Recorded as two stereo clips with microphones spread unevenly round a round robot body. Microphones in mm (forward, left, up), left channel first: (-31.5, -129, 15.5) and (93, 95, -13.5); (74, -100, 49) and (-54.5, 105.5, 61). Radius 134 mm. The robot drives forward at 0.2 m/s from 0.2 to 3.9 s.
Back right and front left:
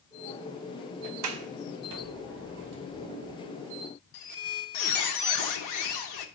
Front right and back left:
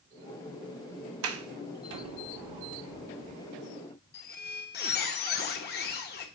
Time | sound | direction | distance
1.2 | a sliding door | 90° left | 0.8 m
4.1 | a squeak | 110° right | 1.0 m